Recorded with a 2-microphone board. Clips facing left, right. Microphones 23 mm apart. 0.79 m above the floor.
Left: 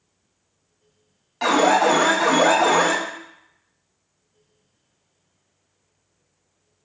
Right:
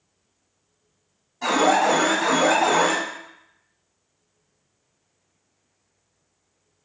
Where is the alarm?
70° left (ahead or behind), 0.8 m.